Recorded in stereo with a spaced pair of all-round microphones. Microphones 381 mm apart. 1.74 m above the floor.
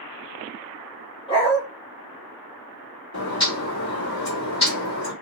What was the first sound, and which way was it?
A dog barking, 15° left (ahead or behind).